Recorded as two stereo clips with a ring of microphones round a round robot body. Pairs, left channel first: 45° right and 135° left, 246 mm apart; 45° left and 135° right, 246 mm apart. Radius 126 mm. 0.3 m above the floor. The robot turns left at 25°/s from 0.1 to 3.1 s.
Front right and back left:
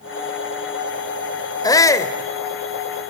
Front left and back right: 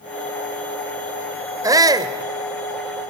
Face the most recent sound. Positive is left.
turn(degrees=-125)